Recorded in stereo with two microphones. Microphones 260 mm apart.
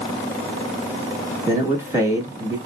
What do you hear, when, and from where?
1.5 s a man speaking: 10° right (ahead or behind), 0.9 m